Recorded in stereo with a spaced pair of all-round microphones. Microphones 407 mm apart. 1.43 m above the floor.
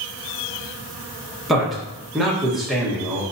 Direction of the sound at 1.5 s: Centre (ahead or behind).